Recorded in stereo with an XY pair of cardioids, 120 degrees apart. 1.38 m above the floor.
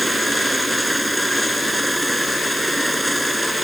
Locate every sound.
0.0 s a machine running: straight ahead